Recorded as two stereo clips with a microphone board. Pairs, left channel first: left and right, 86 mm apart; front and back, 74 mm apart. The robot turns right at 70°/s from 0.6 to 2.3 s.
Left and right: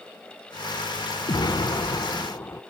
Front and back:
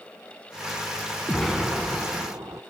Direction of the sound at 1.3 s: 80° left.